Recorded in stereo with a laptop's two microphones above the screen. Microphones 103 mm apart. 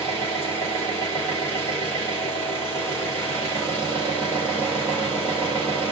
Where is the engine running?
25° left (ahead or behind), 3.5 m.